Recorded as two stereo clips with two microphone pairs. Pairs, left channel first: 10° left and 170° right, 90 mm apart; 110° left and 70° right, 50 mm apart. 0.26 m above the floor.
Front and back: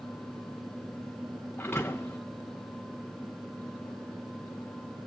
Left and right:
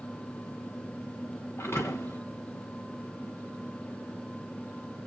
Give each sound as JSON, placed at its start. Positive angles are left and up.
{"t": 1.6, "sound": "a thud", "azimuth_deg": 80, "distance_m": 1.6}